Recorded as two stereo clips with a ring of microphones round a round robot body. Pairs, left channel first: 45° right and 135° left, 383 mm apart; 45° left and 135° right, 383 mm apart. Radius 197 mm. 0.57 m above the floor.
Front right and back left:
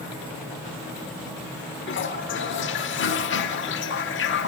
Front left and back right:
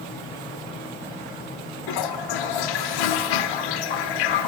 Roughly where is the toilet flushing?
Ahead.